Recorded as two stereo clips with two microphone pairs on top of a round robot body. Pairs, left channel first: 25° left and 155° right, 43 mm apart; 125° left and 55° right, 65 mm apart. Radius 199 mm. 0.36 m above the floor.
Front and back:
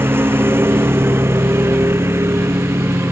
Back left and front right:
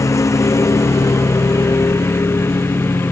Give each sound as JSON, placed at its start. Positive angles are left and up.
{"t": 0.0, "sound": "a lawn mower", "azimuth_deg": 170}